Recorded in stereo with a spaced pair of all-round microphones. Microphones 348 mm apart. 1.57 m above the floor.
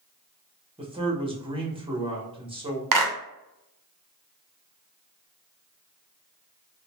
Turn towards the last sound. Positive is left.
turn(degrees=-60)  # may be behind; listen again after turning